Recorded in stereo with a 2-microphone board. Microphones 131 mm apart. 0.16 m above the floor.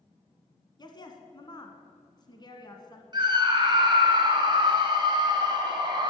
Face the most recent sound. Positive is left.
turn(degrees=-35)  # may be behind; listen again after turning